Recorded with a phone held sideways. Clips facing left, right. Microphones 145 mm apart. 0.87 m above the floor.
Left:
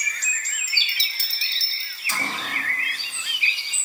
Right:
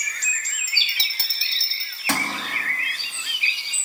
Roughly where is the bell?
Right.